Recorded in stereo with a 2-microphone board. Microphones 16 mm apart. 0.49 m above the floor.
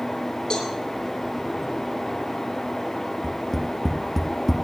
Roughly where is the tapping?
Centre.